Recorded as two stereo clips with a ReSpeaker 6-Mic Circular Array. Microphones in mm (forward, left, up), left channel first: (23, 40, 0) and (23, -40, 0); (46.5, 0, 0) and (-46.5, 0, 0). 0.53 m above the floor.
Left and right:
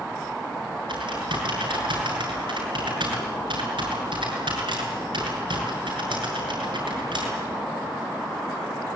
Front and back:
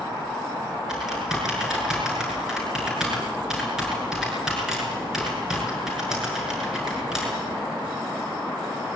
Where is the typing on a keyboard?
95° right, 7 m.